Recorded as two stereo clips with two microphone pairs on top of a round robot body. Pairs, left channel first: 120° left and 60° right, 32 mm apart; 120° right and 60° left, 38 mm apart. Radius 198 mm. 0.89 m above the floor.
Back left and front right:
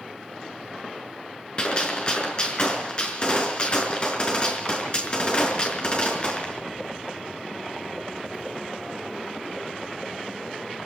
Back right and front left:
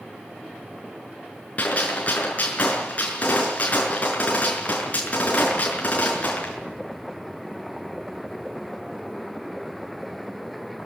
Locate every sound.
1.6 s a gunshot: 175° right, 5 m